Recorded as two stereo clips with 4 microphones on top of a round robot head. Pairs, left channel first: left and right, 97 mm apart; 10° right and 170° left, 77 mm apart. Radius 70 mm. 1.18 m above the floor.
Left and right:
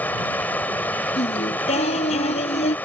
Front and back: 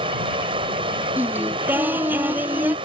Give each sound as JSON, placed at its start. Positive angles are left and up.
{"t": 0.0, "sound": "running water", "azimuth_deg": 165}
{"t": 1.2, "sound": "singing", "azimuth_deg": 105}